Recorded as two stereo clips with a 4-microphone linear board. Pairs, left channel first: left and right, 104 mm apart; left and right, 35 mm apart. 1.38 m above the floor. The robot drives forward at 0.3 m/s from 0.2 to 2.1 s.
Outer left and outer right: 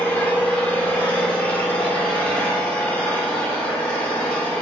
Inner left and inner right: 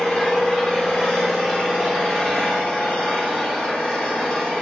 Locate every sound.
0.0 s an engine running: 15° left (ahead or behind), 2.5 m; by 4.6 s 10° left (ahead or behind), 3 m